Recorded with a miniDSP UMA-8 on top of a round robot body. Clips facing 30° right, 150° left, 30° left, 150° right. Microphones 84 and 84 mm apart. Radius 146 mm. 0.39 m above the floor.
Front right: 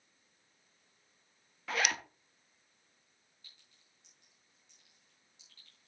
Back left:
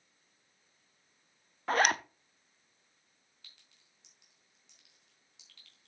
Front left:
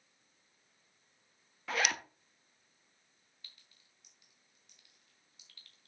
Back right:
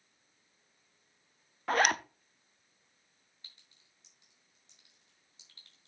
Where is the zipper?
Straight behind, 0.8 m.